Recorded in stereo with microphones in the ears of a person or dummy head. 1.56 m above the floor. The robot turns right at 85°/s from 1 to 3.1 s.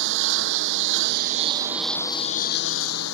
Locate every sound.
0.0 s a lawn mower: 75° right; by 3.1 s 105° left